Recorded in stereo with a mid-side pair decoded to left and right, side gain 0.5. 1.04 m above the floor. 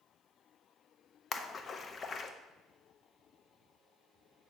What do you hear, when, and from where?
1.3 s a splash: 40° left, 0.6 m